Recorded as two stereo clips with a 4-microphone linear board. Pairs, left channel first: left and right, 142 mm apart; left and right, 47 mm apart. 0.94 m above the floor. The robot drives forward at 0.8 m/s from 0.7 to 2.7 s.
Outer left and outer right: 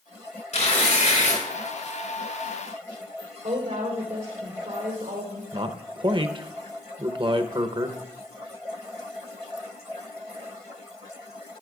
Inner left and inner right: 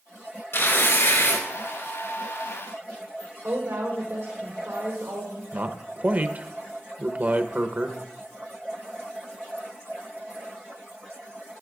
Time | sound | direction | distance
0.5 | tearing paper | 65° left (ahead or behind) | 3.5 m
3.4 | a woman speaking | 65° right (ahead or behind) | 3 m
5.5 | a man speaking | 35° right (ahead or behind) | 0.7 m